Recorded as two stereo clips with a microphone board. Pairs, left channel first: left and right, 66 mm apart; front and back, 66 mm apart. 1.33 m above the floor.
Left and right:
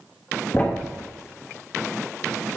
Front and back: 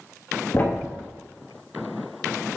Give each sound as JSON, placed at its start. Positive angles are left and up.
{"t": 0.5, "sound": "a thud", "azimuth_deg": 45, "distance_m": 0.8}